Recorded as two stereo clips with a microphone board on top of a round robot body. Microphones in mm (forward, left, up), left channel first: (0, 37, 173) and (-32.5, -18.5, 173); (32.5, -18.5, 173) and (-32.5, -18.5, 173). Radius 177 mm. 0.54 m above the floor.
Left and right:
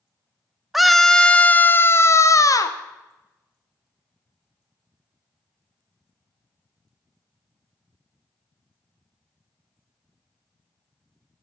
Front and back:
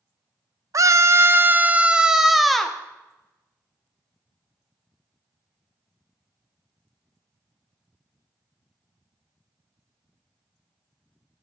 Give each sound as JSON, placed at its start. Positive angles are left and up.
{"t": 0.7, "sound": "a scream", "azimuth_deg": 150, "distance_m": 1.1}